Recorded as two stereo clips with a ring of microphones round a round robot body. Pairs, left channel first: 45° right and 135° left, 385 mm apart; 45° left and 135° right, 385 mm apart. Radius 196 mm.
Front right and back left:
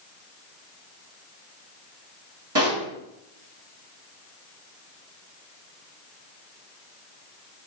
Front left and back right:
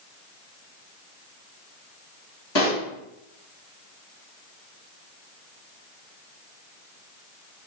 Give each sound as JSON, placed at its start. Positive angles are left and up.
{"t": 2.5, "sound": "a pop", "azimuth_deg": 85, "distance_m": 5.5}